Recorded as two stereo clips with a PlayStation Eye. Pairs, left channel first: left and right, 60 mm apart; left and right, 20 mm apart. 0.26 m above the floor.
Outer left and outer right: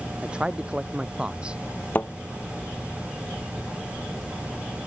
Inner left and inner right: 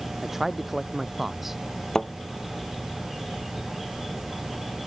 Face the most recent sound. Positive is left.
turn(degrees=35)  # may be behind; listen again after turning